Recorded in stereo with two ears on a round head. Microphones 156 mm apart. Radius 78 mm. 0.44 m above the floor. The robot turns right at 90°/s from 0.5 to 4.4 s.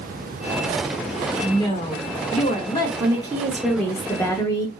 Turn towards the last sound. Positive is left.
turn(degrees=20)  # may be behind; listen again after turning